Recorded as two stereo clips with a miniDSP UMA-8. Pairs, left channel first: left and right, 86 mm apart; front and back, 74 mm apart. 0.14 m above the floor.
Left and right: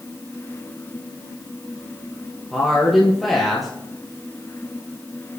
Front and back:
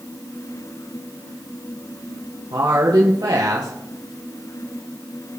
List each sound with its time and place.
2.5 s a woman speaking: straight behind, 3 m